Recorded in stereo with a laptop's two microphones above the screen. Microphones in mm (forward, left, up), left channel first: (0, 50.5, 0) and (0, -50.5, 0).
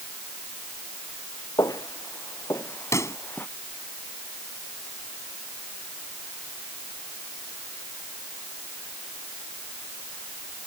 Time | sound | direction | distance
1.6 | footsteps | 35° left (ahead or behind) | ?
2.9 | a pop | 30° left (ahead or behind) | ?